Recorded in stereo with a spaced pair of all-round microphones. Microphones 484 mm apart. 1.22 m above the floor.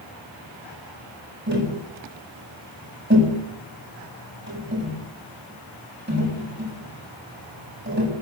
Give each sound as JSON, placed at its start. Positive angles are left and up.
{"t": 1.5, "sound": "tapping", "side_deg": -20, "distance_m": 7.5}